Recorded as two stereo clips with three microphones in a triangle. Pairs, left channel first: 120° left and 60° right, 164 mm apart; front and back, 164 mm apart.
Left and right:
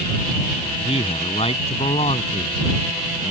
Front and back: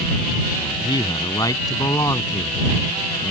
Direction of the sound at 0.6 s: 65° left.